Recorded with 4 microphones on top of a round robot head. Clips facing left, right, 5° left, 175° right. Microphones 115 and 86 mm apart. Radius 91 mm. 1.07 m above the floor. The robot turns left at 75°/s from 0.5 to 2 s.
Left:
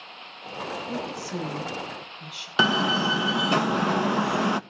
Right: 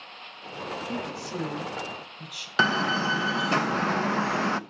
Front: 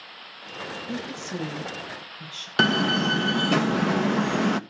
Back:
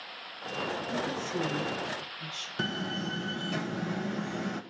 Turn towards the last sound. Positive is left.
turn(degrees=15)